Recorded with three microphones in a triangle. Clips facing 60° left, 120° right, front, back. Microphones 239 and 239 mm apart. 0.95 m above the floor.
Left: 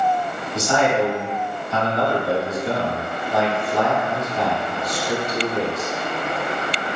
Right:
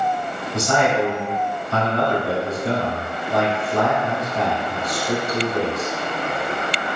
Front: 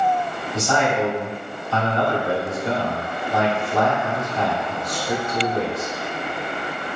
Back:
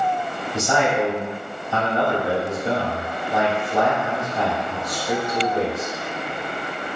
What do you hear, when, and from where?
0.5 s a man speaking: 110° right, 1.7 m